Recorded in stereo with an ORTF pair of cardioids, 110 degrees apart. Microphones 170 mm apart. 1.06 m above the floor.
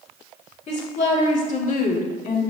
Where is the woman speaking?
45° left, 2.5 m; by 2.4 s 50° left, 1.4 m.